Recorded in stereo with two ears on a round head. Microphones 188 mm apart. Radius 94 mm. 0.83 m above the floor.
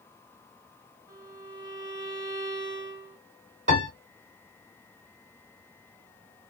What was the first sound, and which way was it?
A violin, 15° right (ahead or behind).